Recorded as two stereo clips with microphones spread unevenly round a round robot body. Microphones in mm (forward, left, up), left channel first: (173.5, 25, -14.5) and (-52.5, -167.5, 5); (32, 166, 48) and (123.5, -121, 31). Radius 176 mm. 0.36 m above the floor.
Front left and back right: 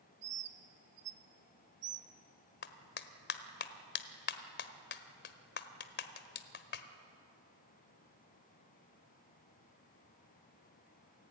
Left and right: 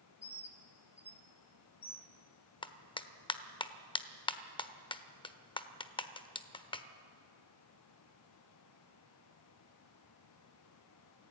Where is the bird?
170° right, 1.1 m.